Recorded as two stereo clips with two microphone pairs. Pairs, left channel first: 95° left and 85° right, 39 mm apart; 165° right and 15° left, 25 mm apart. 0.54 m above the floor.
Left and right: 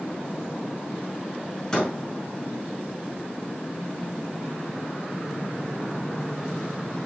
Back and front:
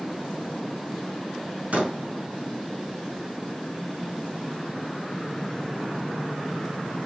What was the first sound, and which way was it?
A door slam, 25° left.